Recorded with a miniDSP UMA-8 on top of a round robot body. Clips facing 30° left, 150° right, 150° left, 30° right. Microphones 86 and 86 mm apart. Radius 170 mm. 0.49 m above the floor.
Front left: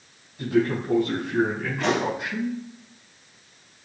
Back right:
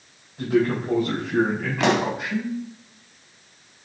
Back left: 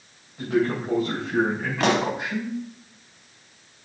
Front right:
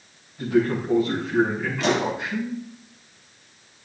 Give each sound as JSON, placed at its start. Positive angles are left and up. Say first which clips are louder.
{"t": 0.4, "sound": "a man speaking", "louder": "back right 1 dB, front right 2 dB", "azimuth_deg": -160, "distance_m": 4.5}
{"t": 1.8, "sound": "a pop", "louder": "back right 3 dB, back left 1 dB", "azimuth_deg": -170, "distance_m": 0.7}